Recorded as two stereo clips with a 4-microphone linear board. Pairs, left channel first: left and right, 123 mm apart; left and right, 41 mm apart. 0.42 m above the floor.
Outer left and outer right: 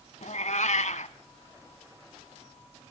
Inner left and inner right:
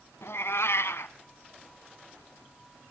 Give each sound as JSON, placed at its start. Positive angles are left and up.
{"t": 0.2, "sound": "a cat meowing", "side_deg": 75, "distance_m": 1.1}